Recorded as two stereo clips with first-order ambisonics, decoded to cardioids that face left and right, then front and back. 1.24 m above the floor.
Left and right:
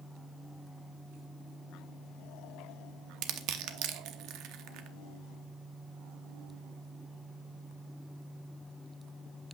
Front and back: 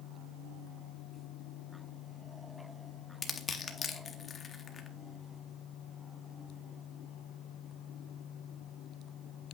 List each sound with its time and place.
3.2 s crushing: 65° right, 0.8 m